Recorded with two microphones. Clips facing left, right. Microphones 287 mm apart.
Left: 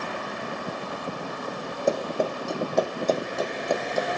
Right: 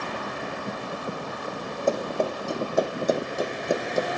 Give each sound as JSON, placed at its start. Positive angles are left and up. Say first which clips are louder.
{"t": 1.9, "sound": "running footsteps", "louder": "even", "side_deg": 10, "distance_m": 3.5}